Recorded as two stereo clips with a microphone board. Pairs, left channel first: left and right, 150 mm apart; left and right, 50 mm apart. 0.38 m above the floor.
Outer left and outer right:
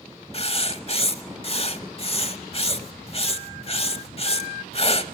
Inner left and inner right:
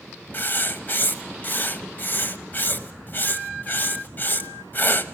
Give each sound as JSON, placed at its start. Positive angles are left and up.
{"t": 0.3, "sound": "writing", "side_deg": 40, "distance_m": 0.9}